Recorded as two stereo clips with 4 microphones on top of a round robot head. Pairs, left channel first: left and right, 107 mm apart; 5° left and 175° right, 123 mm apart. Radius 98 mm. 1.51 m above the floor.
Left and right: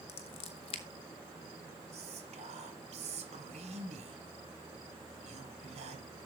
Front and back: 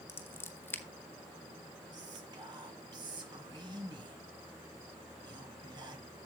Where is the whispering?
115° right, 1.5 m.